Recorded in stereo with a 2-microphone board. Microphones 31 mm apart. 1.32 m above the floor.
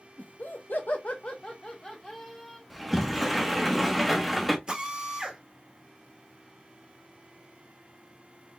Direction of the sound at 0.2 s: 50° left (ahead or behind).